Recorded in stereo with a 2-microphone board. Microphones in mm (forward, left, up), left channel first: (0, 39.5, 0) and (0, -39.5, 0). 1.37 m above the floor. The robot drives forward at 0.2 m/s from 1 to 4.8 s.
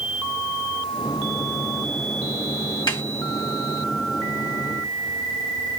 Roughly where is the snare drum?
Left.